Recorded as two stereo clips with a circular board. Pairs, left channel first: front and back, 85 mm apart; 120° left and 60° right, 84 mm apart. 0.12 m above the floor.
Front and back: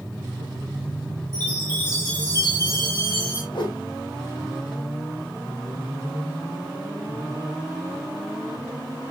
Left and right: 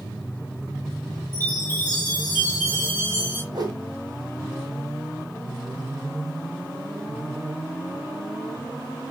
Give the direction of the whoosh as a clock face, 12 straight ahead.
1 o'clock.